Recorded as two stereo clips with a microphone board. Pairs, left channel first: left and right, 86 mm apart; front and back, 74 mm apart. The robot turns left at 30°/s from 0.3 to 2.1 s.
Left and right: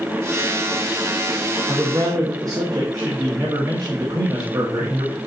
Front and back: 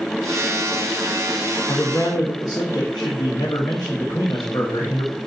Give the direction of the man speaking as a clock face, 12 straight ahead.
1 o'clock.